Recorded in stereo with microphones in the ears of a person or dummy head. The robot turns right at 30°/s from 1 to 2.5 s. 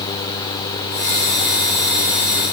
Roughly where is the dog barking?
I don't hear a dog barking.